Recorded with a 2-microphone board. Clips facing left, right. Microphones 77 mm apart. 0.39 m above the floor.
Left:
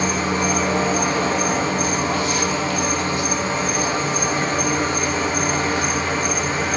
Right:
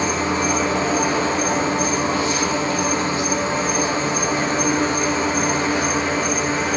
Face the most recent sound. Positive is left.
turn(degrees=-30)  # may be behind; listen again after turning